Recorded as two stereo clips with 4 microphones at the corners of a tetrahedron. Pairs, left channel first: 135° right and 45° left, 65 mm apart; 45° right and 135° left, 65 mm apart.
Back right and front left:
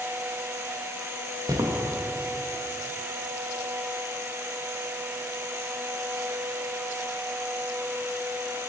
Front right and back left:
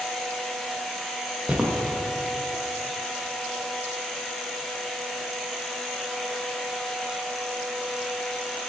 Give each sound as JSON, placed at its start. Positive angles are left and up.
{"t": 1.5, "sound": "footsteps", "azimuth_deg": 60, "distance_m": 1.6}